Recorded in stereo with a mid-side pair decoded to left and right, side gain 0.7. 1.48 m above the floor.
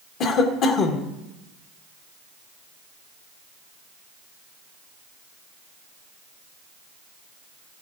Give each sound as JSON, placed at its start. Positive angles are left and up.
{"t": 0.2, "sound": "a cough", "azimuth_deg": 55, "distance_m": 1.6}